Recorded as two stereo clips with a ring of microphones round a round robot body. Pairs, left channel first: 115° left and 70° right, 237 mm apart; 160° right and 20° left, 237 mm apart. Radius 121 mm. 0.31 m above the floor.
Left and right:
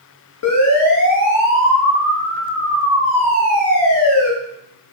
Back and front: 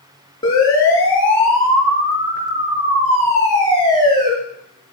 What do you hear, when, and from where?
0.4 s a siren: 130° left, 5.5 m; by 4.3 s 75° left, 6 m